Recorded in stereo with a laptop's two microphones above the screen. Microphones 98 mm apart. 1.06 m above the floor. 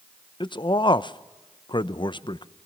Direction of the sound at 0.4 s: 50° left (ahead or behind).